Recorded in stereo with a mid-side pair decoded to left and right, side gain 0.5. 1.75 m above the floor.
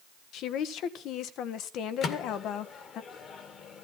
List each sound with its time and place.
0.3 s a woman speaking: 70° left, 1.4 m
2.0 s a microwave: 55° left, 2 m